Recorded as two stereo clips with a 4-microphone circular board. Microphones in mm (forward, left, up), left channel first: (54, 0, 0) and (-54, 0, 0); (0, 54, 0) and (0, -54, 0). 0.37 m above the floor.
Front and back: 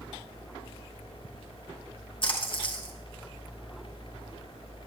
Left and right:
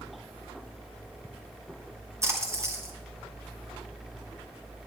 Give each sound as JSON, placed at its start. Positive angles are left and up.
{"t": 2.2, "sound": "a splash", "azimuth_deg": -30, "distance_m": 3.0}